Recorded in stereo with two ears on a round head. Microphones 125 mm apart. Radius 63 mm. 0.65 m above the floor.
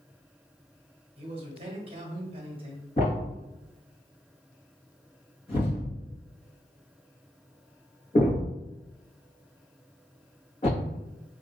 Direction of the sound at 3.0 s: 40° left (ahead or behind).